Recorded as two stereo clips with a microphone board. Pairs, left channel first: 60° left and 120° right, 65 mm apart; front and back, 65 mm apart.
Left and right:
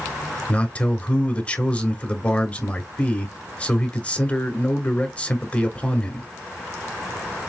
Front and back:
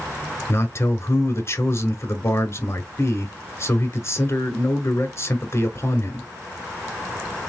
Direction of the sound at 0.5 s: 5° right.